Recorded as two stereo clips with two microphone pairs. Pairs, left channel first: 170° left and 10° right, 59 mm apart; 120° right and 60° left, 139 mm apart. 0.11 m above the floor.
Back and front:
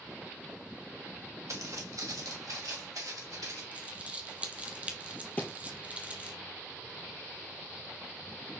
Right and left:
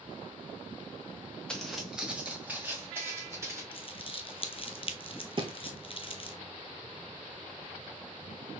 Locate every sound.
1.5 s footsteps: 35° right, 1.0 m; by 3.6 s 10° right, 2.5 m
3.7 s crumpling: 75° right, 0.6 m
5.4 s a thud: 110° left, 0.9 m